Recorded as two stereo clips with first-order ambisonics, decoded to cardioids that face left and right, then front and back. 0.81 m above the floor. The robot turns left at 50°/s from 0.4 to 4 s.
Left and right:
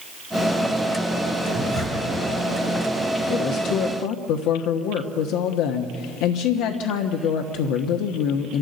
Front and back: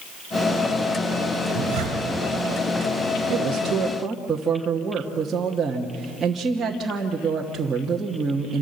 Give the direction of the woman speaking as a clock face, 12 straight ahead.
7 o'clock.